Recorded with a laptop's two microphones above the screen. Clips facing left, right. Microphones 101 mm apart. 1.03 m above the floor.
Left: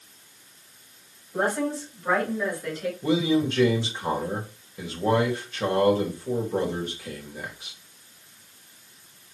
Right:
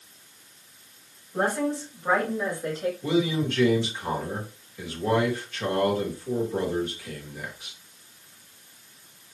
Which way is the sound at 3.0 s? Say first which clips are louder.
Left 3 dB; 25° left (ahead or behind).